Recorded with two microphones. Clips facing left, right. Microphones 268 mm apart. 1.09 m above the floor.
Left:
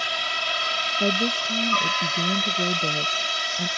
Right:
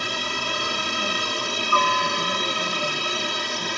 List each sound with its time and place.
0.0 s a helicopter: 55° right (ahead or behind); by 3.8 s 60° right (ahead or behind)
1.0 s a woman speaking: 70° left (ahead or behind)